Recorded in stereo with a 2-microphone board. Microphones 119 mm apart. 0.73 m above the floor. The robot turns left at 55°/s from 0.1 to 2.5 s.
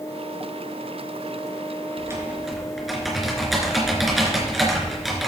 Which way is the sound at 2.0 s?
30° right (ahead or behind).